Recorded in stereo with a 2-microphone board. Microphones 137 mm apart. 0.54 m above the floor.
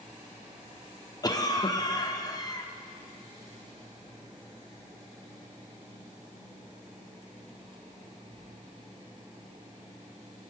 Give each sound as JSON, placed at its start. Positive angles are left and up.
{"t": 1.2, "sound": "a cough", "side_deg": 30, "distance_m": 0.7}